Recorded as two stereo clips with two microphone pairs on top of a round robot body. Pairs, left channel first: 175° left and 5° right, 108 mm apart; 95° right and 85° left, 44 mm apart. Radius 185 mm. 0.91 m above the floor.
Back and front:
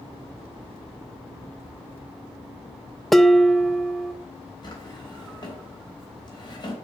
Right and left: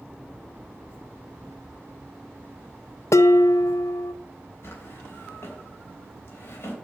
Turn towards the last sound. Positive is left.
turn(degrees=-130)